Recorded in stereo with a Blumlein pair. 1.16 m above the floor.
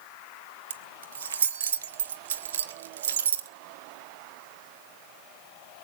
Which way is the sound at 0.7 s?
65° right.